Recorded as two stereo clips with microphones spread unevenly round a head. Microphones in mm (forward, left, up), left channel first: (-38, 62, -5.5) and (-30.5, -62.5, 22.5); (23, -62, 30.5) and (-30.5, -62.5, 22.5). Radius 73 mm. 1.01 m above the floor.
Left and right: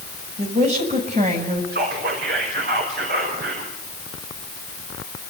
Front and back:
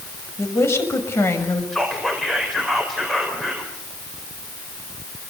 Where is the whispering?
90° right, 4.5 m.